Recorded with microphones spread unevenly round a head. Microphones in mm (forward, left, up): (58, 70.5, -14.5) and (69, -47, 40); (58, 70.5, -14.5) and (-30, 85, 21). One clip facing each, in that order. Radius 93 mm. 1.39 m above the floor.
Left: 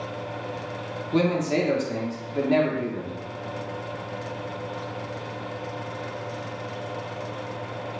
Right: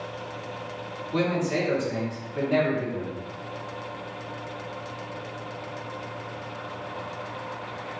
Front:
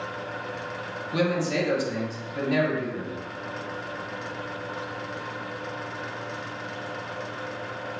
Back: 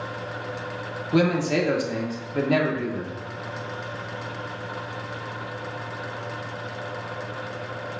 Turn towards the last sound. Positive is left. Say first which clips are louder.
# left 3 dB, back 4 dB
turn(degrees=125)